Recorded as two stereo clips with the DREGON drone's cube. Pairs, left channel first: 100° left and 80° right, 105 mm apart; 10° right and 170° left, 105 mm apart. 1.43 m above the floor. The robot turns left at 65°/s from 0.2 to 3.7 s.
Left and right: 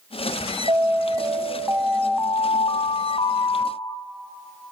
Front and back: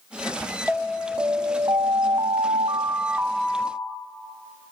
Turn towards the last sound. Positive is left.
turn(degrees=70)